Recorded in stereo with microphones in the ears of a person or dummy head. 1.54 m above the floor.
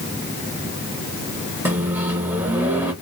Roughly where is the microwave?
Centre.